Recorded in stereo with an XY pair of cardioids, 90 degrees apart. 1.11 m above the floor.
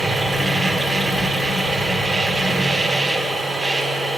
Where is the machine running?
25° right, 1.6 m.